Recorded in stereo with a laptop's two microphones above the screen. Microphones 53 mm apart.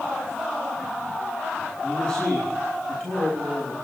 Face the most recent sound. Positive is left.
turn(degrees=15)  # may be behind; listen again after turning